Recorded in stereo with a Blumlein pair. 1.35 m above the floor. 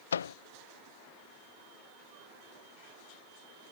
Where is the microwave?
70° left.